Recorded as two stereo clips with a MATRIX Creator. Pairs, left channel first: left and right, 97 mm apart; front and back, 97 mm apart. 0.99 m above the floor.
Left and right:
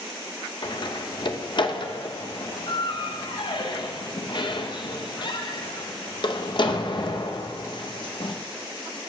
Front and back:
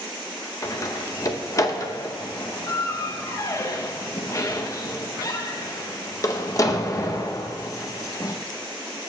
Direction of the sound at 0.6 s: 55° left.